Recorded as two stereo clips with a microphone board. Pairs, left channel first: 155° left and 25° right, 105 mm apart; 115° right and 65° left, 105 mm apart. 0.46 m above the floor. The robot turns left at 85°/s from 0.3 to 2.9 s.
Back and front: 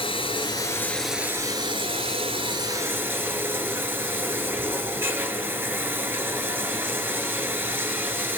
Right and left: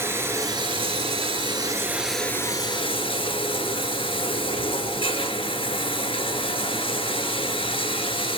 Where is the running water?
135° left, 1.0 m; by 8.4 s 90° right, 1.0 m.